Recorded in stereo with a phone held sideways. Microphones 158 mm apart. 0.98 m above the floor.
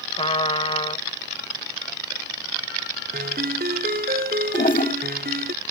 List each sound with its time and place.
0.2 s a trumpet: 35° left (ahead or behind)
3.1 s a ringtone: 75° right (ahead or behind)
4.5 s a toilet flushing: 60° left (ahead or behind)